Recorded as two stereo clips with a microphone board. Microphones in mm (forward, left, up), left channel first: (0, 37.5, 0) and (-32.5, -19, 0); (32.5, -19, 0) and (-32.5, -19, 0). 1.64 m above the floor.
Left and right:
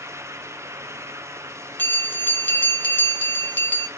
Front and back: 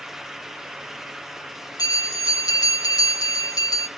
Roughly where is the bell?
Ahead.